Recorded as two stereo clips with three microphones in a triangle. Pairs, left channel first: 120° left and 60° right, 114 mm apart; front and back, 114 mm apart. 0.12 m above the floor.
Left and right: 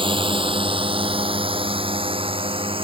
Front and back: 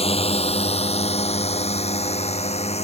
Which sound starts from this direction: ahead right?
A drone, at 0.0 s.